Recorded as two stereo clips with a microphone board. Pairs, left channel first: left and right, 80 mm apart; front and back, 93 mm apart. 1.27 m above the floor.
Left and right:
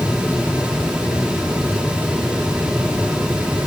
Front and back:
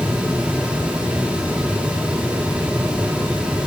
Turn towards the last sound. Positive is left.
No sound to turn to.